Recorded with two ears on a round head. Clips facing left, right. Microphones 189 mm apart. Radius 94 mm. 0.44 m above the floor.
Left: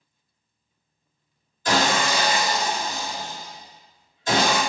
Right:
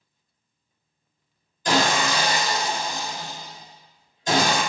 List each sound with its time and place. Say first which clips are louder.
1.6 s sawing: even; 10° right (ahead or behind), 1.3 m